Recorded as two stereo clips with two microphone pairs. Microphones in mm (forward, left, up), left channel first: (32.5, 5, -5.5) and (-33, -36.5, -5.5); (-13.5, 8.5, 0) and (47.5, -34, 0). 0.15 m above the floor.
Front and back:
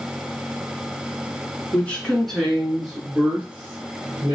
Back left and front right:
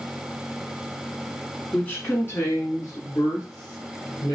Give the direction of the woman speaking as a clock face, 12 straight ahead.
9 o'clock.